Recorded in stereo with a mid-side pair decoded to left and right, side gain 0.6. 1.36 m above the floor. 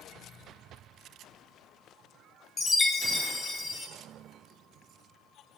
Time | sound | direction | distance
2.6 | a chime | 20° left | 1.8 m